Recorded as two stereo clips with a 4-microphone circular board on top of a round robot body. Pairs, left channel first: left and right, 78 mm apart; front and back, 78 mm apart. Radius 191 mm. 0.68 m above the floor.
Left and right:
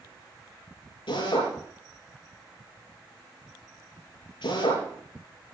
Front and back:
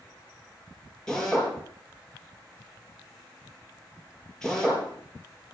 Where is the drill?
85° left, 10 m.